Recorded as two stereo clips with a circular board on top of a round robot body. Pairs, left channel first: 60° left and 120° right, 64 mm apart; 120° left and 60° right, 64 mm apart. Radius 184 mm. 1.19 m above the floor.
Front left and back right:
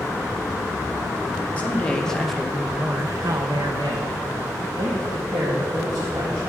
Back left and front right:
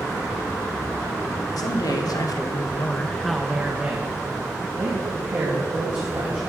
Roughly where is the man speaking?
Behind left.